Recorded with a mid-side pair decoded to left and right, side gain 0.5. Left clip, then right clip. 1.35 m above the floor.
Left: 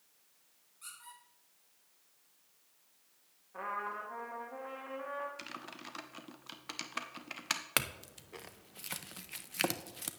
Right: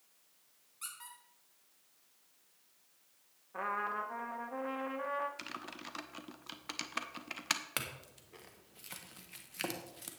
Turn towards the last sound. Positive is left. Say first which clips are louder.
# left 6 dB
turn(degrees=45)